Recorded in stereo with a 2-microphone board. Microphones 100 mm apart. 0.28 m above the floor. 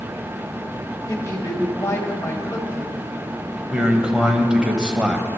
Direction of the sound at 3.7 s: 10° right (ahead or behind).